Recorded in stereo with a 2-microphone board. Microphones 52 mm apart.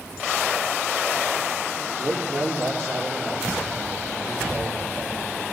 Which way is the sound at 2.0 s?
65° right (ahead or behind).